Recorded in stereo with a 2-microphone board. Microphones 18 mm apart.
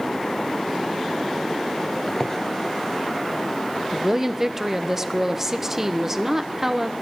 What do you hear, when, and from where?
2.1 s a squeak: 20° left (ahead or behind), 1.2 m
3.9 s a woman speaking: 20° right (ahead or behind), 0.9 m